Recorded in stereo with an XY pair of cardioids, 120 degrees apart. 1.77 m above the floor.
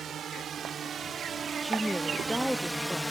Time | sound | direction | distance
0.0 | a drone | 50° right | ?
1.6 | a woman speaking | straight ahead | ?